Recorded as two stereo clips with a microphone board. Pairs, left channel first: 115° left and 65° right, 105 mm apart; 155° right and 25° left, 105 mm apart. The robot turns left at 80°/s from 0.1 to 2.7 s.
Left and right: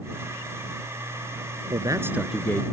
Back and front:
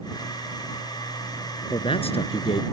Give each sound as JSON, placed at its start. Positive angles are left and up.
{"t": 1.7, "sound": "a man speaking", "azimuth_deg": -105}